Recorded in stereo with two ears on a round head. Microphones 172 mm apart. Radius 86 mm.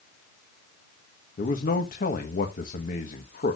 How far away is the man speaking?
About 1.4 m.